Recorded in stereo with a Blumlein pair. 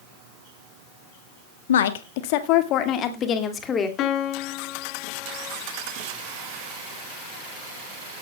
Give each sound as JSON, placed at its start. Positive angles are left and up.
{"t": 1.7, "sound": "a woman speaking", "azimuth_deg": 60, "distance_m": 1.4}
{"t": 4.0, "sound": "a piano", "azimuth_deg": 35, "distance_m": 1.4}